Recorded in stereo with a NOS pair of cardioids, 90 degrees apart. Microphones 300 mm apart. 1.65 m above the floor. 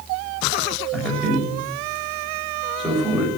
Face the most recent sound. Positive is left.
turn(degrees=0)